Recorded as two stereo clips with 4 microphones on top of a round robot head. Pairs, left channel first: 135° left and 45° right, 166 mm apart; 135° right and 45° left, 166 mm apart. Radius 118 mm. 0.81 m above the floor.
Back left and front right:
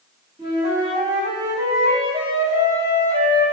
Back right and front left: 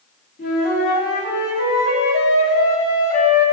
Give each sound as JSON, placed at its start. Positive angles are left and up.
{"t": 0.4, "sound": "a flute", "azimuth_deg": -115, "distance_m": 2.0}